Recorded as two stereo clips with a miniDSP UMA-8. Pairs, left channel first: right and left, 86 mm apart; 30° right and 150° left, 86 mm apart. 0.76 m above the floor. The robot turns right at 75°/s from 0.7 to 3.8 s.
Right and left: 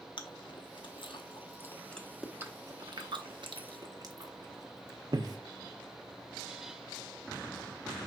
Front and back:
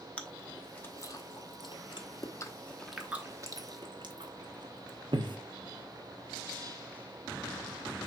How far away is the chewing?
About 0.8 m.